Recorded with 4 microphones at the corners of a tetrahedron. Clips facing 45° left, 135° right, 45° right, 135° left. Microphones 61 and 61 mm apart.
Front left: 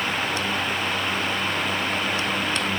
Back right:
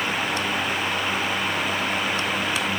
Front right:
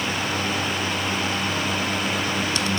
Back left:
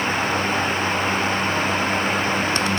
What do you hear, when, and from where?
Only background noise.